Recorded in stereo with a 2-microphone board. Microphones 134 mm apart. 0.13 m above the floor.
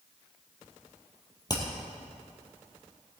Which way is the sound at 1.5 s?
30° left (ahead or behind).